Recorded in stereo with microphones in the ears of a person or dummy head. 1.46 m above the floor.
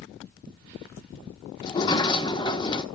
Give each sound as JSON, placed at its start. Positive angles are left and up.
{"t": 1.6, "sound": "a sliding door", "side_deg": 25, "distance_m": 1.2}